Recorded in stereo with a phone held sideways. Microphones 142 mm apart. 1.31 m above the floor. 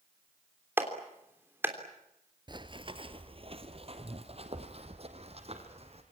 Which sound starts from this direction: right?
Running footsteps, at 2.5 s.